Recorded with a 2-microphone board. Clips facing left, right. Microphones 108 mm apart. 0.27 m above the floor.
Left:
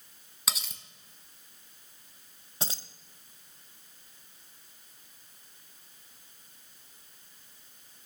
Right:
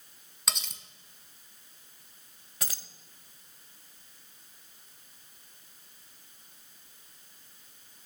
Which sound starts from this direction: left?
Keys jangling, at 2.6 s.